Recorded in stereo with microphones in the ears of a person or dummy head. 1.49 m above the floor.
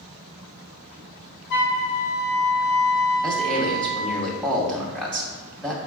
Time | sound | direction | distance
1.5 | a flute | 65° left (ahead or behind) | 0.8 m
3.2 | a man speaking | 5° left (ahead or behind) | 0.9 m